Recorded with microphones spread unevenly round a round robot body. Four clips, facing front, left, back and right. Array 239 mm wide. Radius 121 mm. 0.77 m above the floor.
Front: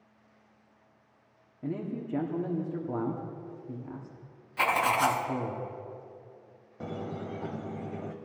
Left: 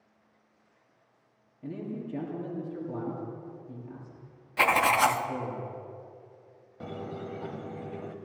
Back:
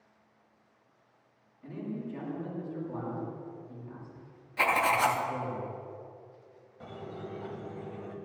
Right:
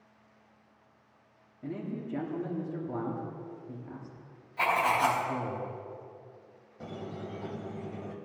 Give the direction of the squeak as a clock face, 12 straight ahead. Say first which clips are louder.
Left 2 dB, front 5 dB; 11 o'clock.